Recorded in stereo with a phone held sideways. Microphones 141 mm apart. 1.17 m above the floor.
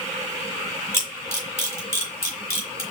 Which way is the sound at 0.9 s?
20° left (ahead or behind).